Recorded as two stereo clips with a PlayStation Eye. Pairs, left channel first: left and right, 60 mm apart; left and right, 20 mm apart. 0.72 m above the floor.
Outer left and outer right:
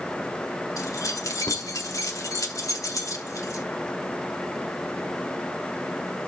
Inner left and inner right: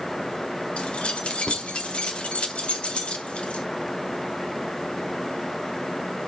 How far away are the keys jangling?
About 1.6 m.